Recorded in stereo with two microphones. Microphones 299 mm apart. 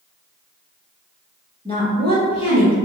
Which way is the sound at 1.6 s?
20° left (ahead or behind).